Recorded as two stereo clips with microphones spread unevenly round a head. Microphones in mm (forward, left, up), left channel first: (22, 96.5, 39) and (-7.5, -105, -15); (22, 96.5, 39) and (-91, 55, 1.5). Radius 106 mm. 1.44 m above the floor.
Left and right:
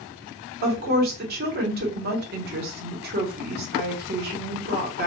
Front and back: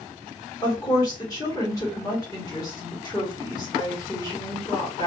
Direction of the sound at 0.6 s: 50° right.